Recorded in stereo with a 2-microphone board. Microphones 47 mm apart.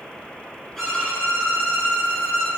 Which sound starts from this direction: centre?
A violin, at 0.8 s.